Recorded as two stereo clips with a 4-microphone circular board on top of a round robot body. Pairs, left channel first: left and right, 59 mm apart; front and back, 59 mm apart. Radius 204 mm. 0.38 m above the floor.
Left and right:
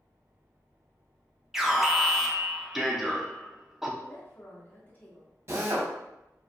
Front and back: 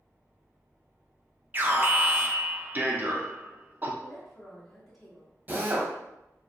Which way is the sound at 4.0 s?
90° left.